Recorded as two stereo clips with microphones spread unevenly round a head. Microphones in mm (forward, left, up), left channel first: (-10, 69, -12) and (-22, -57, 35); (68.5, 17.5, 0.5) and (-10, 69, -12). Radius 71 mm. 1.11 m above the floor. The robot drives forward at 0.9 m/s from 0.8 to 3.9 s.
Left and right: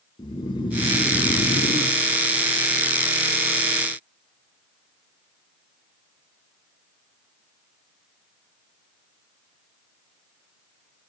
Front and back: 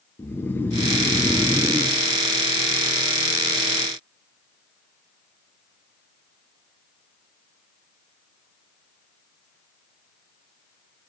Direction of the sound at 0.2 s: 40° left.